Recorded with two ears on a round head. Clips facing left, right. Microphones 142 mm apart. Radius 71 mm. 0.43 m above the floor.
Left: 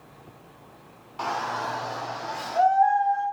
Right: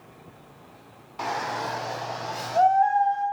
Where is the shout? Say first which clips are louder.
Even; 5° right (ahead or behind), 0.9 m; by 3.2 s 35° right (ahead or behind), 3 m.